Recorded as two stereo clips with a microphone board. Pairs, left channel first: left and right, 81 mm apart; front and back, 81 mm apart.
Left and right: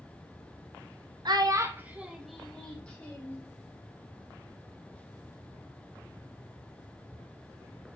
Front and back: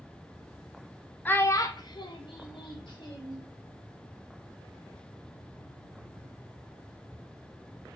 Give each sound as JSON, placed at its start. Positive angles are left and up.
{"t": 1.2, "sound": "a child speaking", "azimuth_deg": -65, "distance_m": 0.5}